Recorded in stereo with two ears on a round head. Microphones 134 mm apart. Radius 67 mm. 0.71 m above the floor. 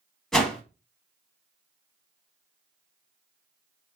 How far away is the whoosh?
About 0.7 m.